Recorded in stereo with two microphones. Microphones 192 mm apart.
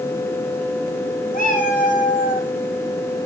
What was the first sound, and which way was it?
A cat meowing, 45° left (ahead or behind).